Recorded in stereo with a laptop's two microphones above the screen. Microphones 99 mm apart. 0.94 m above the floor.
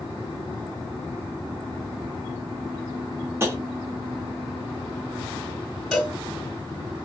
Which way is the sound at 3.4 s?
25° right (ahead or behind).